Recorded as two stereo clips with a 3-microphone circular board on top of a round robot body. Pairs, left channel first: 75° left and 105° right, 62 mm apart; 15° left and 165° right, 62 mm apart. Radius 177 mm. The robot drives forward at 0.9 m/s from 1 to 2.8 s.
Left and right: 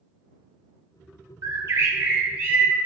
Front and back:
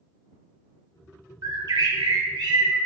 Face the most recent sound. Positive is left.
turn(degrees=-165)